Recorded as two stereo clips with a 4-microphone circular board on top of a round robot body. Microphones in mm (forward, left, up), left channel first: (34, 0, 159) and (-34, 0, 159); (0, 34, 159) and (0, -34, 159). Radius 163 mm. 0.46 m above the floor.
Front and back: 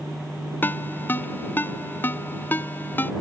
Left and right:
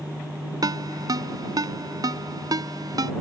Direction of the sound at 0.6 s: 65° right.